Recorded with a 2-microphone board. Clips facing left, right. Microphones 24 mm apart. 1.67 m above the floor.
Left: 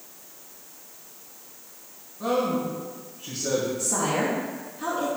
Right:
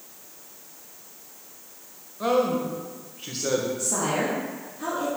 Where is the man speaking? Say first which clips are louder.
Right 2 dB; 85° right, 1.4 m.